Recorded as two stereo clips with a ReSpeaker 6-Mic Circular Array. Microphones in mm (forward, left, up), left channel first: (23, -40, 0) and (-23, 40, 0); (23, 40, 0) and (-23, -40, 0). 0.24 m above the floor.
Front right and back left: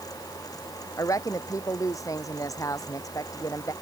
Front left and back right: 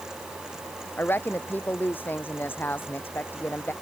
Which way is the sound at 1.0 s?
5° right.